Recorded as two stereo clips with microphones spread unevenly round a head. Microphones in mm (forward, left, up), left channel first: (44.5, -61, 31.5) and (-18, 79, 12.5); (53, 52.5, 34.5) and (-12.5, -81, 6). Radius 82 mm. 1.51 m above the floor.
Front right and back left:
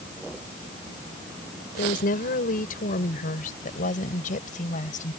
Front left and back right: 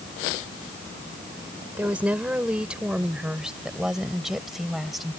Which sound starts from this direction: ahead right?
A woman speaking, at 1.8 s.